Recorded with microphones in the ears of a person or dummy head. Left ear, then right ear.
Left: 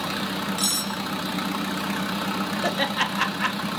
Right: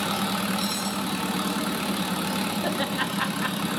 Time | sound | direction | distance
0.6 | cutlery clinking | 35° left (ahead or behind) | 4.5 m
2.6 | laughter | 70° left (ahead or behind) | 2 m